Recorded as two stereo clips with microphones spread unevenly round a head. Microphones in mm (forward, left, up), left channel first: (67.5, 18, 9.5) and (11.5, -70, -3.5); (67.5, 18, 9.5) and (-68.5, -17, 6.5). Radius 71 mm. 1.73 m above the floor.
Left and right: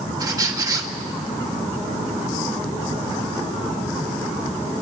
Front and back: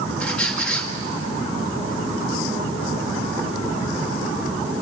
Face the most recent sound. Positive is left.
turn(degrees=-70)